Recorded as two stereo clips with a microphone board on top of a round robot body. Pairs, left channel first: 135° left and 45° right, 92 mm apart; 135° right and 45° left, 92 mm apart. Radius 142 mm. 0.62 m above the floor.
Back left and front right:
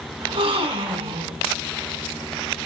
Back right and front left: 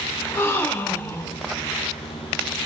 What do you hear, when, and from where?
0.2 s a gasp: 70° right, 1.6 m